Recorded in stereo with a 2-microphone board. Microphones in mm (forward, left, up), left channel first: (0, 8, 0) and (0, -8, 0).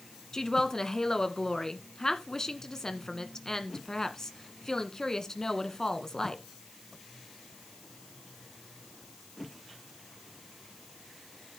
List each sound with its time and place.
0.3 s a woman speaking: 35° left (ahead or behind), 1.5 m